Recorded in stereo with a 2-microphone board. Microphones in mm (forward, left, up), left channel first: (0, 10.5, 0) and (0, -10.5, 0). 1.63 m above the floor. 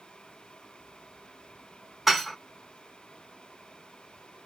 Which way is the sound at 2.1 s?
5° right (ahead or behind).